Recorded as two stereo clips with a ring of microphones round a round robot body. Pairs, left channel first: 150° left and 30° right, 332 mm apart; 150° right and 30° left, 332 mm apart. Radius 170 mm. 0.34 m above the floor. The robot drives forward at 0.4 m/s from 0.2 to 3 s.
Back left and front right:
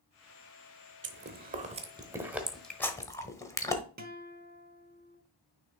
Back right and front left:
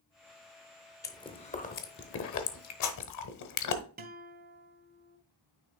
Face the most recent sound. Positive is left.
turn(degrees=0)